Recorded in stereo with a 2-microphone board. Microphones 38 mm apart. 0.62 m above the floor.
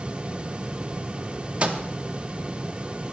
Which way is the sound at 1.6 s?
35° right (ahead or behind).